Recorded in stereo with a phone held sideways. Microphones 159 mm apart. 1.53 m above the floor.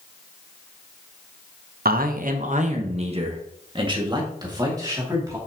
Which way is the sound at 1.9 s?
70° right (ahead or behind).